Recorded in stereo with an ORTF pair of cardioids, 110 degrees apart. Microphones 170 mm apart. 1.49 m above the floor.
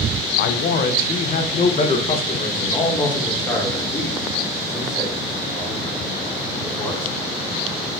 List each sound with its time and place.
0.4 s a man speaking: 65° left, 1.0 m; by 7.2 s 10° left, 4.5 m